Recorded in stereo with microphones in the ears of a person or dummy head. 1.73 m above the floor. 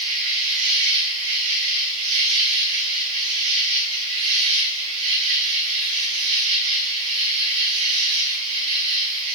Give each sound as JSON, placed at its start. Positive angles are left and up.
{"t": 0.0, "sound": "an insect", "side_deg": -45, "distance_m": 3.5}